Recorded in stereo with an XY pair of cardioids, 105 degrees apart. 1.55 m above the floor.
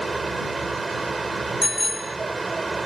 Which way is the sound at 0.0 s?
20° right.